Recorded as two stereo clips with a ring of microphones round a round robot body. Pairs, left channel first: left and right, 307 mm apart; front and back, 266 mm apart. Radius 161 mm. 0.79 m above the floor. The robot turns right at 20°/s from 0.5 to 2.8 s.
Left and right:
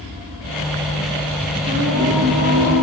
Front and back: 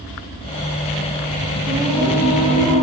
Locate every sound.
1.7 s singing: 105° right, 1.2 m; by 2.8 s 80° right, 1.2 m